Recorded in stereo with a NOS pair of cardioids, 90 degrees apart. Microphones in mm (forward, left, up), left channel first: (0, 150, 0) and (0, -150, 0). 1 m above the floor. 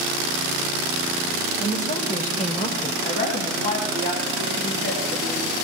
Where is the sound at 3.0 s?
35° left, 7.5 m.